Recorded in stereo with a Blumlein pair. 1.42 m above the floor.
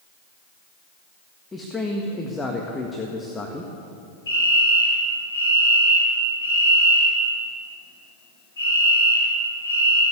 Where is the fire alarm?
65° left, 5.5 m.